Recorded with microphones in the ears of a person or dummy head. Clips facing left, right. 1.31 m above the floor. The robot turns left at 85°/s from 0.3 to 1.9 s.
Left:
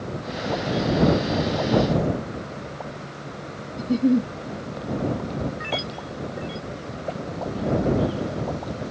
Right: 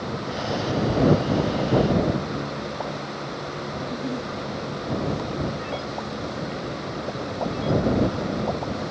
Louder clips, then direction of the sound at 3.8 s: Left 12 dB; 50° left (ahead or behind).